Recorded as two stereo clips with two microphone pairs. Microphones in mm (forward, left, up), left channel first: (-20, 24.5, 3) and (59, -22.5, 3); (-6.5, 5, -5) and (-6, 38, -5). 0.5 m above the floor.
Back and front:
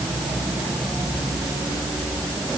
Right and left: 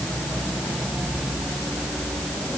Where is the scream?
No scream in this recording.